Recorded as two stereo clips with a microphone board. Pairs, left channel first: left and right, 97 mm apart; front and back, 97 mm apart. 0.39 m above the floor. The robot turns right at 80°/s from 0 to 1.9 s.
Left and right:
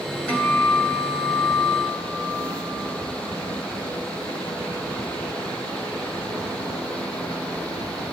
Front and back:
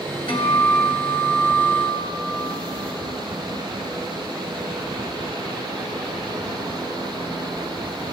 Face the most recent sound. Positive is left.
turn(degrees=145)